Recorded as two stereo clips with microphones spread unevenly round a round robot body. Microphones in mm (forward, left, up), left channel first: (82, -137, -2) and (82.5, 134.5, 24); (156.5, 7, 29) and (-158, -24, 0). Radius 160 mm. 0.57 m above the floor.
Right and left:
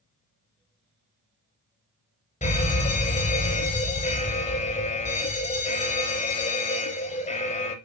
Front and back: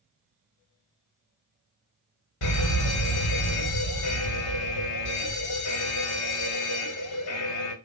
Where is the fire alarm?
30° right, 3.5 m.